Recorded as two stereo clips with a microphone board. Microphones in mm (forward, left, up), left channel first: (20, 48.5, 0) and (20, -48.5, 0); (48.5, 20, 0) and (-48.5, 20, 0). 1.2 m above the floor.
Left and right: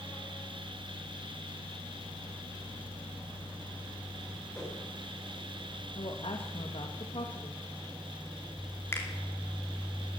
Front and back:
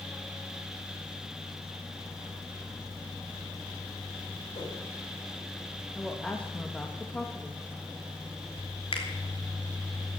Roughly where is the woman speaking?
Left.